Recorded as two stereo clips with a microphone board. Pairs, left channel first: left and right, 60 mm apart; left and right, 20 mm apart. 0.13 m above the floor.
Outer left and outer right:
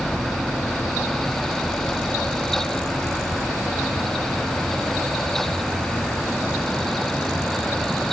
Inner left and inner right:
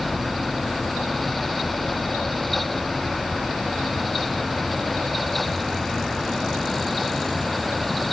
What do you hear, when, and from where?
Only background noise.